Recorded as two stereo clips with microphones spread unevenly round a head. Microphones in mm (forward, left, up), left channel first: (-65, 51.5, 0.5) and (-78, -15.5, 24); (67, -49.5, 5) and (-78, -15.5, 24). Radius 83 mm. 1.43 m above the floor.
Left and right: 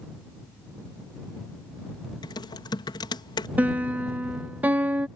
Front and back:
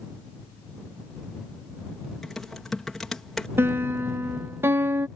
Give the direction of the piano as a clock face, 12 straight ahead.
4 o'clock.